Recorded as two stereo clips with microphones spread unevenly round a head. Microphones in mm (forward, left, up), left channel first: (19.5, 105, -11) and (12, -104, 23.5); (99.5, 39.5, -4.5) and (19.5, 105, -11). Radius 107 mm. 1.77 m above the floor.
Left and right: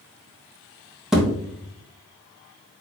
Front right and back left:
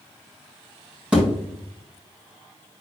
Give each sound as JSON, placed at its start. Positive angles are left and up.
{"t": 1.1, "sound": "a thud", "azimuth_deg": -150, "distance_m": 1.0}